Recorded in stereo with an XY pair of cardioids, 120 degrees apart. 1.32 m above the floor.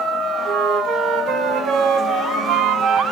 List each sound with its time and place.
0.5 s a flute: 65° right, 0.8 m